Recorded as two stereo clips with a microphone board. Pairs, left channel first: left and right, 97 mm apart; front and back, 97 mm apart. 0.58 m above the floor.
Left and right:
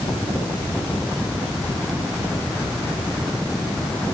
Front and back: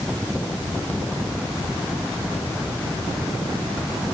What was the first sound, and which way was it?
Only background noise.